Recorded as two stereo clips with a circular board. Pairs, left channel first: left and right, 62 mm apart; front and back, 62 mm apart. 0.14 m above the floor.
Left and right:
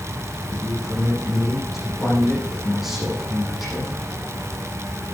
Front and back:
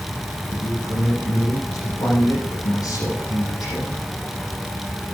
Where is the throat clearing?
No throat clearing in this recording.